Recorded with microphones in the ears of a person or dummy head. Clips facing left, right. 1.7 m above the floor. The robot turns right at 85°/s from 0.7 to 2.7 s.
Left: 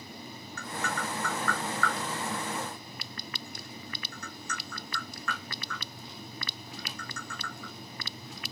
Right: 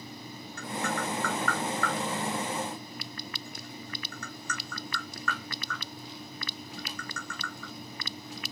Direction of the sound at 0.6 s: 60° left (ahead or behind).